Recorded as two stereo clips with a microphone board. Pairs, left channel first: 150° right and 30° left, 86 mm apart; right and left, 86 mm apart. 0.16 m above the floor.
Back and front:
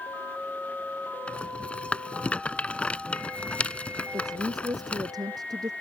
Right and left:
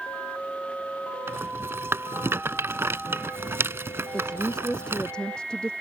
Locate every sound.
1.3 s a rattle: 140° left
4.1 s a woman speaking: 10° right